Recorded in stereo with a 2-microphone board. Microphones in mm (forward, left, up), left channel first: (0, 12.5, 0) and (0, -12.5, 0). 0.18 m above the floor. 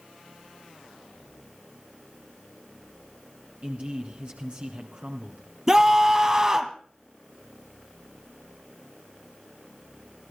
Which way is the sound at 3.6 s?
55° right (ahead or behind).